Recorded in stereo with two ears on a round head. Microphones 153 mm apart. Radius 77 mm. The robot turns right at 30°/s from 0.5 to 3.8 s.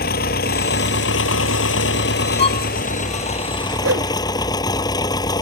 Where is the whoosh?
85° right.